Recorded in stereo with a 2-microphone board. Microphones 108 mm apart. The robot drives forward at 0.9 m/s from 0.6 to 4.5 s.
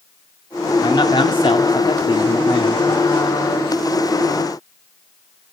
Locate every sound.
0.8 s a man speaking: 40° left (ahead or behind), 1.6 m; by 3.3 s 35° left (ahead or behind), 2.0 m